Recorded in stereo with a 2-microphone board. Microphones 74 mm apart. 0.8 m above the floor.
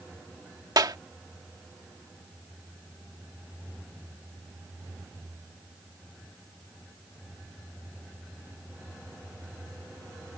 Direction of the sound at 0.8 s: 70° right (ahead or behind).